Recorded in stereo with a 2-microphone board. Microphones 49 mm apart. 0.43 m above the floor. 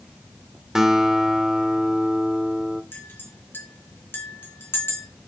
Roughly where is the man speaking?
No man speaking in this recording.